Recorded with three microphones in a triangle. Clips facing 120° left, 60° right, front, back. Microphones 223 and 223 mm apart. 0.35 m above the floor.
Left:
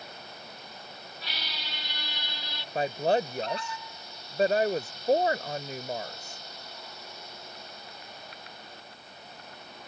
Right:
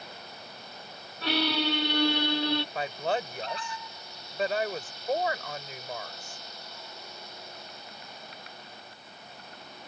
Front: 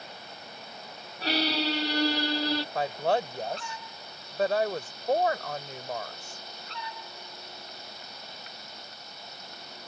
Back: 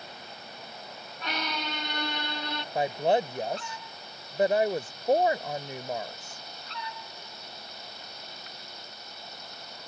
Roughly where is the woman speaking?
Behind left.